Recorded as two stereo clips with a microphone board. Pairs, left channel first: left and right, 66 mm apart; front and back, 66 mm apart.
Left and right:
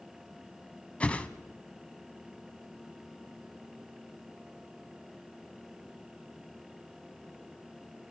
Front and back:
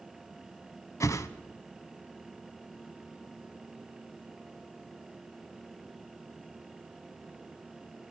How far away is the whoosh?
About 1.1 m.